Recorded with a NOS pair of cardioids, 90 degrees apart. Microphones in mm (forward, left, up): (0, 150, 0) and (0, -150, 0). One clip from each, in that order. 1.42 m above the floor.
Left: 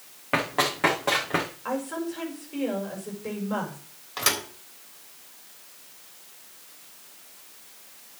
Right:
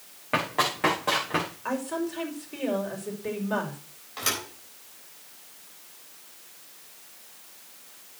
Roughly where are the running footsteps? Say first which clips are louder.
Left 1 dB; ahead.